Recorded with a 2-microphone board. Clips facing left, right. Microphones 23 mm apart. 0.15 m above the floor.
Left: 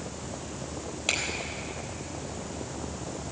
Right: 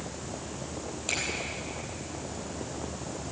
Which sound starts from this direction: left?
A finger snap, at 1.1 s.